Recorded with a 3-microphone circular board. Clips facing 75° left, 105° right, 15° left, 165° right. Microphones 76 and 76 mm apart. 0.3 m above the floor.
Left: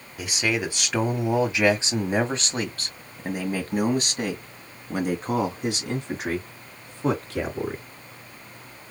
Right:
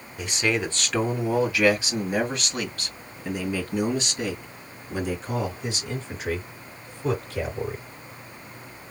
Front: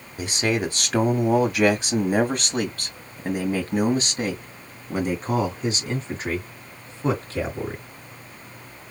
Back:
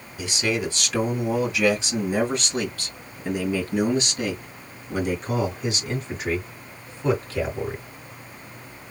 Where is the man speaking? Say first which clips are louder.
Right 1 dB, front 2 dB; 10° right, 2 m; by 7.8 s 75° left, 4 m.